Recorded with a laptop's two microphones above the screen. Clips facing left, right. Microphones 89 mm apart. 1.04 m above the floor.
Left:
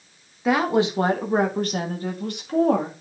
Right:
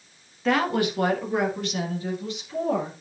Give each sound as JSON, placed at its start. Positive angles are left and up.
{"t": 0.5, "sound": "a woman speaking", "side_deg": 10, "distance_m": 1.3}